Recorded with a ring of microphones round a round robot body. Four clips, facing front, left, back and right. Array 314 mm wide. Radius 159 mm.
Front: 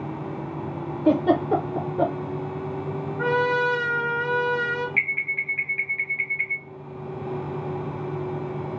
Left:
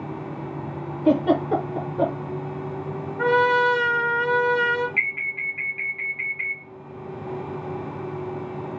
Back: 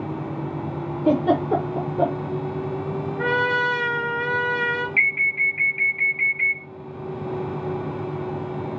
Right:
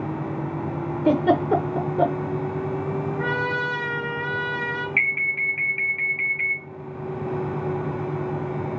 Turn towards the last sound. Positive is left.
turn(degrees=-90)